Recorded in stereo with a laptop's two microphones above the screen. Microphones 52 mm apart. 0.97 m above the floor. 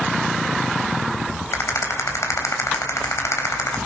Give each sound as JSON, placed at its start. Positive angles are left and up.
{"t": 1.5, "sound": "a rattle", "side_deg": 90, "distance_m": 4.0}